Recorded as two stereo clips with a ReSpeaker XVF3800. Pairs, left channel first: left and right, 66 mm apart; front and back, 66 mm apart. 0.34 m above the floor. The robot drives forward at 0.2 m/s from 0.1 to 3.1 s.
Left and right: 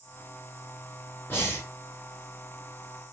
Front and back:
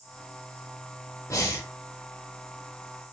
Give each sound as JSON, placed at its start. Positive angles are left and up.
{"t": 1.3, "sound": "breathing", "azimuth_deg": 35, "distance_m": 0.9}